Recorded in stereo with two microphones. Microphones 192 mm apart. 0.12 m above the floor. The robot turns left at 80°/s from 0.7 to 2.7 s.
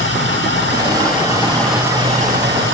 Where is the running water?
80° left, 9.5 m; by 2.8 s 80° right, 9.5 m.